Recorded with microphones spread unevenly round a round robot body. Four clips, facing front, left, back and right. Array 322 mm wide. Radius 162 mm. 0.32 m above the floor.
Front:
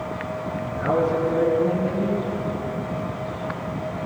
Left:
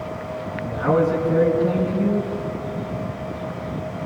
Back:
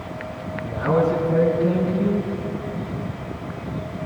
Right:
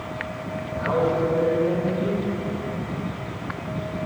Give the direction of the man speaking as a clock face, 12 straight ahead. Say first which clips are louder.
Left 3 dB, back 2 dB; 7 o'clock.